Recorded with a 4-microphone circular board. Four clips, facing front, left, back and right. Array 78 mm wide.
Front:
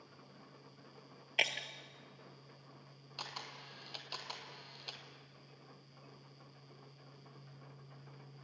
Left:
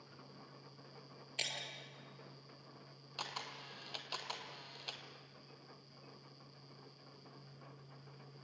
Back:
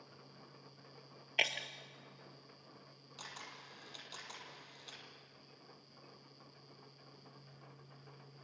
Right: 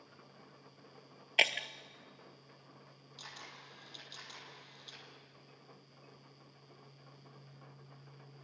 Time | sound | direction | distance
1.4 | breaking glass | 90° right | 1.1 m
3.2 | a camera shutter | 60° left | 2.5 m